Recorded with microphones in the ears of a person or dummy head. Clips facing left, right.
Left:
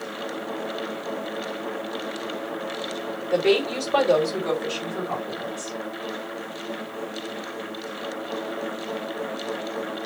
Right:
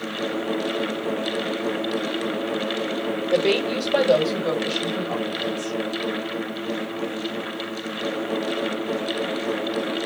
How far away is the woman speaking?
About 1.9 m.